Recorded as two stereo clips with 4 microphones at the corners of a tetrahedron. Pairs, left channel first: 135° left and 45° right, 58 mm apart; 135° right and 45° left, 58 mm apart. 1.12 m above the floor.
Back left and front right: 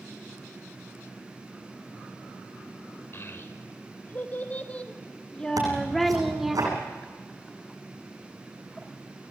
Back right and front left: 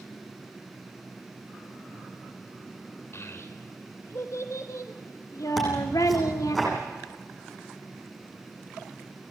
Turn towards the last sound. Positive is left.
turn(degrees=-45)